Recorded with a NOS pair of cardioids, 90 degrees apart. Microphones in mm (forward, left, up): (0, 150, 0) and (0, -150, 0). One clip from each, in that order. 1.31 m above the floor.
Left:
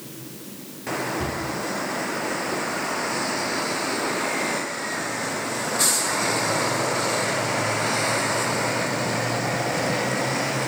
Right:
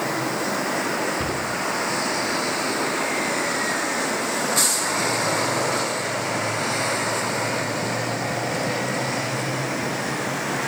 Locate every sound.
1.2 s a cupboard door: 30° right, 2.5 m